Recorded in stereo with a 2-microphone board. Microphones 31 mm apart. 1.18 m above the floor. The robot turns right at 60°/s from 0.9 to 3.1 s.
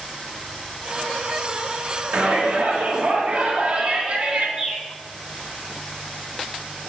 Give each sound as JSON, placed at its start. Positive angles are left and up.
{"t": 2.1, "sound": "a shout", "azimuth_deg": -105, "distance_m": 1.1}
{"t": 4.6, "sound": "a bird", "side_deg": -20, "distance_m": 1.2}